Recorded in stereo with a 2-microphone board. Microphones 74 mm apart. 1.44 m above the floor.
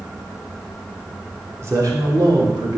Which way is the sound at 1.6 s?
40° right (ahead or behind).